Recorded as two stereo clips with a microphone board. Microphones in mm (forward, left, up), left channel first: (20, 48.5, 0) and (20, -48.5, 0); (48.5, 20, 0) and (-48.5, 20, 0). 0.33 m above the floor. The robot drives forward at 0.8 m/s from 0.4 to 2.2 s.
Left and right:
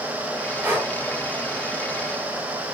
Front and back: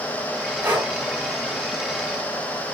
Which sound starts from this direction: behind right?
Breathing, at 0.6 s.